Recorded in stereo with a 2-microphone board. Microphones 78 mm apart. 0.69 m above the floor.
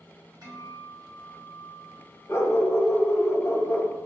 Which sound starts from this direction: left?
A dog barking, at 2.3 s.